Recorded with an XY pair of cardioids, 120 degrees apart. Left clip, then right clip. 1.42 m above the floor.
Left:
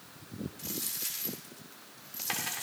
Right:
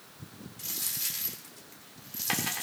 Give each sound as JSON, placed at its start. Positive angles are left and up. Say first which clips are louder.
{"t": 0.6, "sound": "a dropped coin", "louder": "right 4 dB", "azimuth_deg": -20, "distance_m": 2.5}